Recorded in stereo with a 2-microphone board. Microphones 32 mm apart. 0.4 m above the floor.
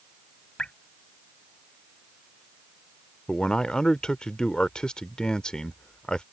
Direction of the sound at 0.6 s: 35° left (ahead or behind).